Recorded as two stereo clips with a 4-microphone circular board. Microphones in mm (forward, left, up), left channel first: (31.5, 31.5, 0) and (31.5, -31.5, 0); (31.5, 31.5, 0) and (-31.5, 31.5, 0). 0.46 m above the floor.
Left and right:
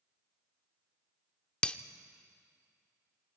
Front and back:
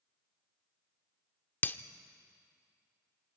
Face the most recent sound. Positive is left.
turn(degrees=30)